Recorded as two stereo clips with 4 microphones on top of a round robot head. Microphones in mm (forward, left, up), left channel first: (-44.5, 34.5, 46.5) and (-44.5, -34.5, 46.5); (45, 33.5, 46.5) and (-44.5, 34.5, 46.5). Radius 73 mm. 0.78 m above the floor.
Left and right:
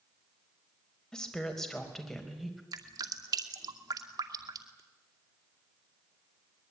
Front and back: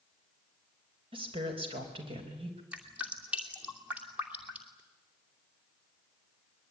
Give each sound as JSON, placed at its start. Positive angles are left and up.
{"t": 1.1, "sound": "a woman speaking", "azimuth_deg": 170, "distance_m": 5.0}
{"t": 2.7, "sound": "dripping", "azimuth_deg": -105, "distance_m": 2.5}